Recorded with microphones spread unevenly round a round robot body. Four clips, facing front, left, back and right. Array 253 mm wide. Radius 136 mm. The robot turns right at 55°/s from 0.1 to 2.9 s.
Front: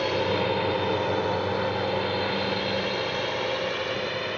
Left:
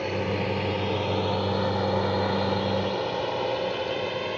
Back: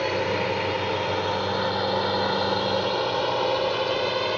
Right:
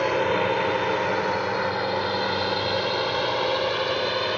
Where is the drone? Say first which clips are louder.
Right 6 dB, even; 95° right; by 4.4 s 150° right.